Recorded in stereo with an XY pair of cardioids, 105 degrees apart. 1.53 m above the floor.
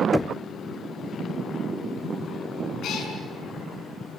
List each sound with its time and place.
0.1 s knocking: 15° left, 0.8 m
2.8 s a cat meowing: 70° left, 6.5 m